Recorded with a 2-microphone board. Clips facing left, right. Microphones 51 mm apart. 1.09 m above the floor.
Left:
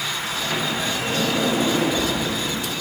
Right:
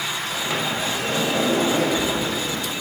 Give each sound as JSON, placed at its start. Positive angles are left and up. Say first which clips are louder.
{"t": 0.3, "sound": "a sliding door", "louder": "even", "side_deg": -60, "distance_m": 6.0}